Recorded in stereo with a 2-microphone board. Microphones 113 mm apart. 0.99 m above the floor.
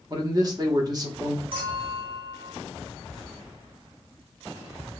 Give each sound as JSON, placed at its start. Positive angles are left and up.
{"t": 0.1, "sound": "a man speaking", "side_deg": -35, "distance_m": 0.9}
{"t": 1.5, "sound": "a clink", "side_deg": -50, "distance_m": 1.5}